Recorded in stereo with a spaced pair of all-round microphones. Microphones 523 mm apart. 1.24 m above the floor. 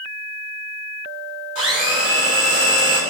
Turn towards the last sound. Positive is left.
turn(degrees=-25)  # may be behind; listen again after turning